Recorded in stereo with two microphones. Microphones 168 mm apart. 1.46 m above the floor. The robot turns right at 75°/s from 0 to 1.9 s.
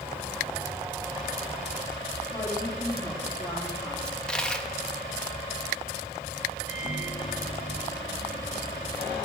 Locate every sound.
2.3 s a woman speaking: 20° left (ahead or behind), 3.5 m
4.0 s a dropped coin: 5° left (ahead or behind), 0.9 m
6.7 s a microwave: 45° left (ahead or behind), 2 m